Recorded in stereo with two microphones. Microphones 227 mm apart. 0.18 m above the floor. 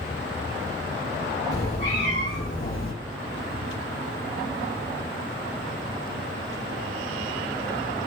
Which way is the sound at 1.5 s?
45° left (ahead or behind).